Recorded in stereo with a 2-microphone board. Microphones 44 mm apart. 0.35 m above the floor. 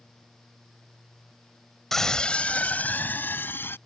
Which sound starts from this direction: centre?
A scream, at 1.9 s.